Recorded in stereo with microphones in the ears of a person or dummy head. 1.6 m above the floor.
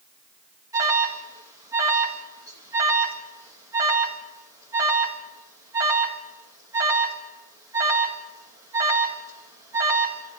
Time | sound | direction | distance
0.7 | an alarm | 15° right (ahead or behind) | 4 m